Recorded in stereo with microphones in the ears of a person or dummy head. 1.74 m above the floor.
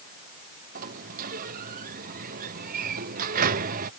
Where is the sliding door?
50° right (ahead or behind).